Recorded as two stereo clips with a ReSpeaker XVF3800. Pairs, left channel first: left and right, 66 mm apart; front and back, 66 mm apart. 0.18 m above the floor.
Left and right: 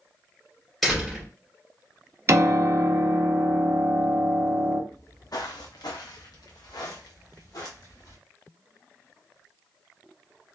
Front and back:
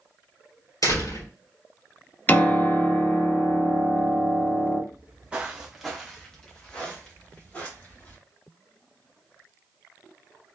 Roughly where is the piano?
Ahead right.